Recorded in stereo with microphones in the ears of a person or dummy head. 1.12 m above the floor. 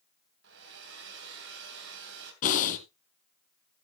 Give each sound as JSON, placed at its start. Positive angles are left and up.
{"t": 0.4, "sound": "a hair dryer", "side_deg": -65, "distance_m": 3.0}
{"t": 2.4, "sound": "breathing", "side_deg": 45, "distance_m": 2.5}